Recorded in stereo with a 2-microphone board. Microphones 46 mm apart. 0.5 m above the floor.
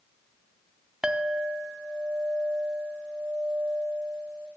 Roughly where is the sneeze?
I don't hear a sneeze.